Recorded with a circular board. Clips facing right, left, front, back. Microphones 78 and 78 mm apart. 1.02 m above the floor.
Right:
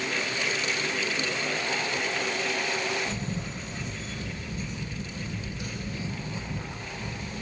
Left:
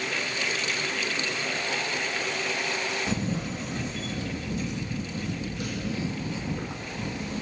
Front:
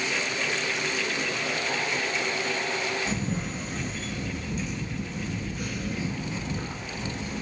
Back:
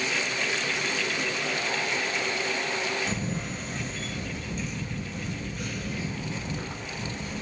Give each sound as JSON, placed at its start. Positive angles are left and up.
{"t": 3.1, "sound": "a camera shutter", "azimuth_deg": 90, "distance_m": 0.8}